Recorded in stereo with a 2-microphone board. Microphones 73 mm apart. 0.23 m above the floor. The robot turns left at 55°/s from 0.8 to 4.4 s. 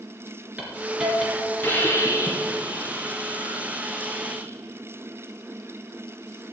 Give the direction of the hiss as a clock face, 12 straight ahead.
5 o'clock.